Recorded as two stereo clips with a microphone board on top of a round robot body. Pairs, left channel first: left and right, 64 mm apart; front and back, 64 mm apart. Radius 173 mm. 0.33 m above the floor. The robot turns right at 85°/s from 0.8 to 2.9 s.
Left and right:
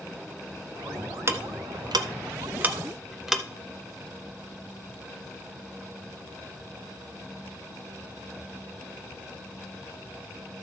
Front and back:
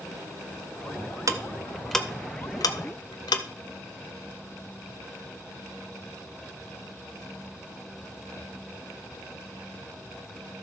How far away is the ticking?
About 0.5 m.